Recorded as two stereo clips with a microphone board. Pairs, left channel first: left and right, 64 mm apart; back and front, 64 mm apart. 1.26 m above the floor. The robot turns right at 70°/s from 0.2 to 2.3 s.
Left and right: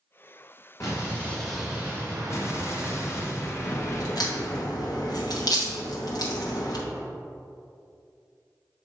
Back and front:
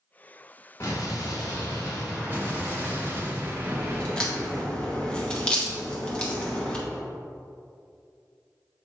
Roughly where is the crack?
Left.